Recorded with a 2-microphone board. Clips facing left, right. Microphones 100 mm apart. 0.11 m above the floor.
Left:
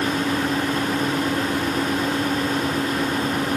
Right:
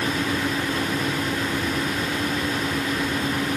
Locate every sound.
Only background noise.